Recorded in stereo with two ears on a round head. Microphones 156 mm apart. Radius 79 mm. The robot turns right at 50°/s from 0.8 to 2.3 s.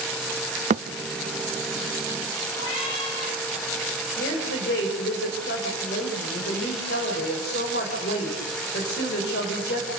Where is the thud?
40° right (ahead or behind), 0.6 m.